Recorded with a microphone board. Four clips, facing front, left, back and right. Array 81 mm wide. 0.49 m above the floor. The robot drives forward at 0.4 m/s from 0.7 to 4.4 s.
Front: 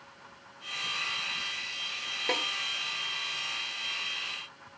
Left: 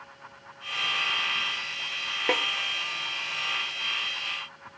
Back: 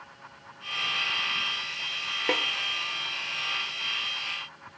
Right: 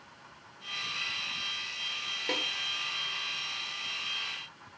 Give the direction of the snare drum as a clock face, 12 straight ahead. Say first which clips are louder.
Left 8 dB, back 3 dB; 8 o'clock.